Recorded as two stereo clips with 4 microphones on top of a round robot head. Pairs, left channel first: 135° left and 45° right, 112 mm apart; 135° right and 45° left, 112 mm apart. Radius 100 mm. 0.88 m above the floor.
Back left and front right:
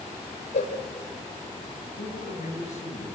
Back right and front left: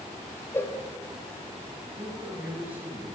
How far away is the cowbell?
About 3.5 m.